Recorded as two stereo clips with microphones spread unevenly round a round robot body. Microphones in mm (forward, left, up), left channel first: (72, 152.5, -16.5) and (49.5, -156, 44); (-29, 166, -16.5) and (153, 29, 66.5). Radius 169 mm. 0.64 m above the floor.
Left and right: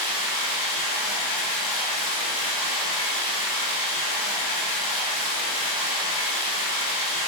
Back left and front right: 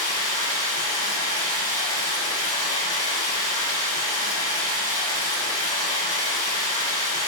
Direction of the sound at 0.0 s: 60° left.